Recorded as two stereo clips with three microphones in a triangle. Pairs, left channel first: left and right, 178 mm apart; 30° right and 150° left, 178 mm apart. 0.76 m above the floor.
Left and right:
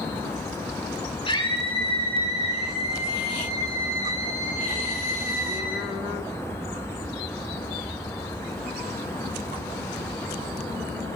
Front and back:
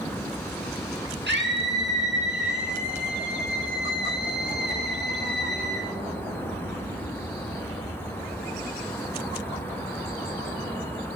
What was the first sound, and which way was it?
A scream, 150° left.